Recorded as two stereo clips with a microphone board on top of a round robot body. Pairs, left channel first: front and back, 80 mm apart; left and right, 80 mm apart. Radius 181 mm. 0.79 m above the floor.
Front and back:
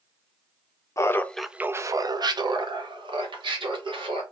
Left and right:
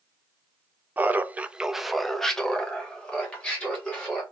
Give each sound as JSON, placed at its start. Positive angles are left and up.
{"t": 1.0, "sound": "laughter", "azimuth_deg": -30, "distance_m": 0.5}